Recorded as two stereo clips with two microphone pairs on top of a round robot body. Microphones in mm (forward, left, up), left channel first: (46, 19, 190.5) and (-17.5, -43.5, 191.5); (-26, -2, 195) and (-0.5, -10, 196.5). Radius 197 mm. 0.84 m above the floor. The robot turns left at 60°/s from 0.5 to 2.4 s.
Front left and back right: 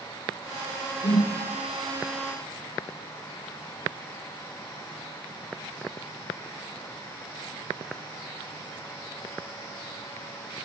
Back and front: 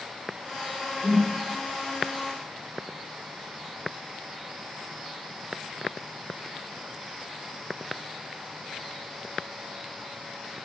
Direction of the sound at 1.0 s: 30° left.